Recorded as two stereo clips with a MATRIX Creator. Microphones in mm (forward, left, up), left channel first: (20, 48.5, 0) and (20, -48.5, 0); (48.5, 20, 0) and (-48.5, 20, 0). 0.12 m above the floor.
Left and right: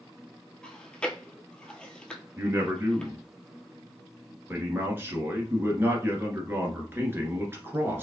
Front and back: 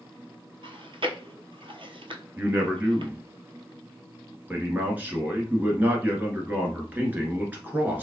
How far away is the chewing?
About 0.7 m.